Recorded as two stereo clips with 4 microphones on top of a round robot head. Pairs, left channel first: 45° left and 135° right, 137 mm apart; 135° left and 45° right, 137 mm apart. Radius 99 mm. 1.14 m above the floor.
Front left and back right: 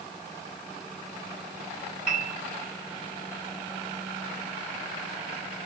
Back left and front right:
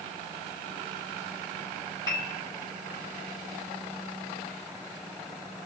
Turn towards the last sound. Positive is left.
turn(degrees=-160)